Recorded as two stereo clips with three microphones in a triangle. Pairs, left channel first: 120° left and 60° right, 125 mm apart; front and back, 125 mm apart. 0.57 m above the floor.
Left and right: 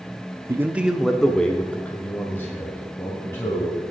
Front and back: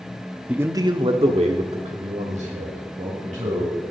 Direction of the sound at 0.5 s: 105° right.